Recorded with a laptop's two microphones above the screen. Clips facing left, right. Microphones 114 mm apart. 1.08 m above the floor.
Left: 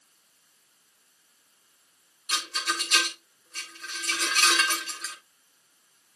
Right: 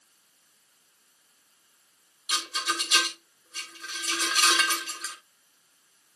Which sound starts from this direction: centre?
A rattle, at 2.3 s.